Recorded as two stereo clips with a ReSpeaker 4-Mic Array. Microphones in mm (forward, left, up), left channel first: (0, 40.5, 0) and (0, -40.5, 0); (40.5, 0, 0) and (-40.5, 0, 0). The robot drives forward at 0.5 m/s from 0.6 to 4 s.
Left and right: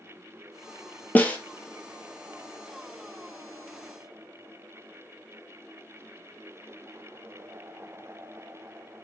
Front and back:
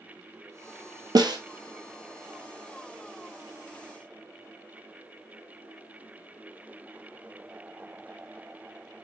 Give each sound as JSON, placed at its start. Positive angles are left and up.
{"t": 1.1, "sound": "a snare drum", "azimuth_deg": 155, "distance_m": 0.8}